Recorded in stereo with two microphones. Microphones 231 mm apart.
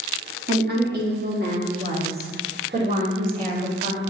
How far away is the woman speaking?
About 1.3 m.